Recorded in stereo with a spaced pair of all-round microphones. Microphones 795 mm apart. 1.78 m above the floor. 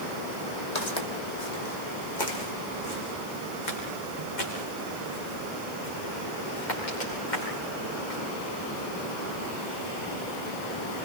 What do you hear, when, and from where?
0.8 s footsteps: 55° left (ahead or behind), 3 m; by 8.2 s 65° left (ahead or behind), 9.5 m